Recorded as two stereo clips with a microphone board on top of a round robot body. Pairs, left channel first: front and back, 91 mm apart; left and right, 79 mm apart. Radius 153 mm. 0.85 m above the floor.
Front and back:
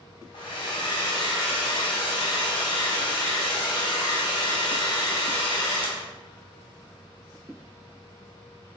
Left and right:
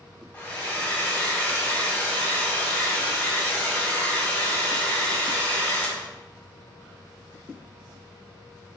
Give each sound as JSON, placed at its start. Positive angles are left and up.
{"t": 0.3, "sound": "a hair dryer", "azimuth_deg": 25, "distance_m": 0.8}